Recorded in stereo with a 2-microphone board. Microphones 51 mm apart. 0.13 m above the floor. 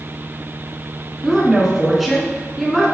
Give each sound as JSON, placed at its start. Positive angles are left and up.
{"t": 1.2, "sound": "a woman speaking", "side_deg": 0, "distance_m": 1.1}